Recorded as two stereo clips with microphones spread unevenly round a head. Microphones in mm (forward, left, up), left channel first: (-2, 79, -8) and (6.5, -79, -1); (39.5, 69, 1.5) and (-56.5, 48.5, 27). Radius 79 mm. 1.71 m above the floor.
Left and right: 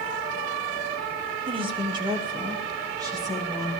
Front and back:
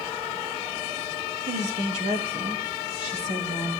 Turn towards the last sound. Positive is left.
turn(degrees=-155)